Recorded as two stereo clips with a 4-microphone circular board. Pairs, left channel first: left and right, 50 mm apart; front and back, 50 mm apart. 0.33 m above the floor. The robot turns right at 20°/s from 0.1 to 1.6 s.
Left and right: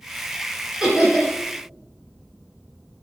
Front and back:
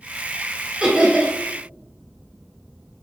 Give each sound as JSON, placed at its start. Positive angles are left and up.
{"t": 0.8, "sound": "laughter", "azimuth_deg": -155, "distance_m": 1.5}